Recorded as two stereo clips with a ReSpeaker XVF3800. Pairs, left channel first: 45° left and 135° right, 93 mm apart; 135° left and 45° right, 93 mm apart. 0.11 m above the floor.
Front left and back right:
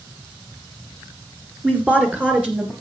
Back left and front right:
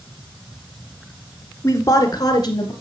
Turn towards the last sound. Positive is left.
turn(degrees=155)